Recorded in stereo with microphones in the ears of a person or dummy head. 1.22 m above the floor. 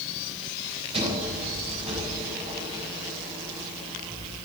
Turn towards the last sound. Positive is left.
turn(degrees=-30)  # may be behind; listen again after turning